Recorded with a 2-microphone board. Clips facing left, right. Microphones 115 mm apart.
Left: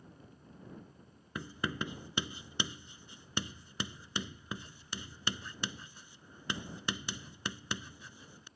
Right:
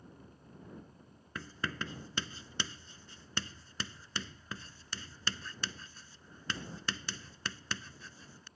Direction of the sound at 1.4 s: 15° left (ahead or behind).